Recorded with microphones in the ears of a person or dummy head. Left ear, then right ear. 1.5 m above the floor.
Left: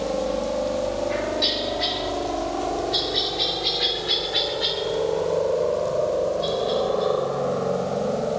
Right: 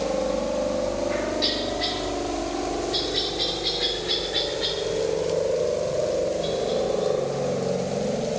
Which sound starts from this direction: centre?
A helicopter, at 0.0 s.